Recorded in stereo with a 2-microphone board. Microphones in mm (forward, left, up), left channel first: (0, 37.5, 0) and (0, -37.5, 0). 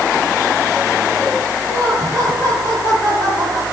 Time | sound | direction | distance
1.7 | laughter | 25° left (ahead or behind) | 6 m